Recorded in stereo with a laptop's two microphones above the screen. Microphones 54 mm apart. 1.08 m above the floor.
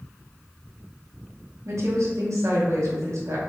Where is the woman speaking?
65° right (ahead or behind), 0.8 m.